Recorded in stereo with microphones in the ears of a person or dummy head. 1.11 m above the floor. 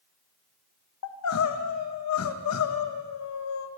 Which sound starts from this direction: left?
Crying, at 1.0 s.